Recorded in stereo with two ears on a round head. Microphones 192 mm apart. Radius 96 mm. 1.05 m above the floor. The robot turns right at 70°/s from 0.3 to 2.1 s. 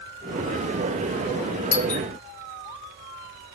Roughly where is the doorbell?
Left.